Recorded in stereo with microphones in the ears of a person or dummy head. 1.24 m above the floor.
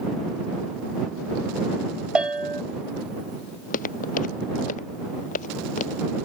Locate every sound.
2.1 s a bell: 5° right (ahead or behind)
3.6 s footsteps: 45° left (ahead or behind); by 6.1 s 40° left (ahead or behind)